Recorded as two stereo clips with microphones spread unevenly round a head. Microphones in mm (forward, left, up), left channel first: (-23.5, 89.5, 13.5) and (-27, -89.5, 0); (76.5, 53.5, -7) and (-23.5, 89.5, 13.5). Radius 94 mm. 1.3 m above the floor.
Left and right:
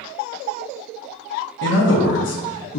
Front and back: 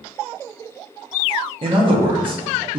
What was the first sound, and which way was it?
A man speaking, 115° left.